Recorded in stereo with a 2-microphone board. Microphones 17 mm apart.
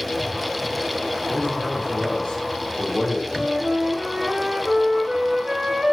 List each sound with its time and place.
1.3 s a man speaking: 35° left (ahead or behind), 2 m
3.3 s a flute: 40° right (ahead or behind), 1.0 m